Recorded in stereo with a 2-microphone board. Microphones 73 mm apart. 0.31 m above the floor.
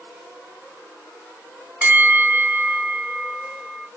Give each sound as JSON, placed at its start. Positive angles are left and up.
{"t": 1.8, "sound": "a bell", "side_deg": -20, "distance_m": 0.9}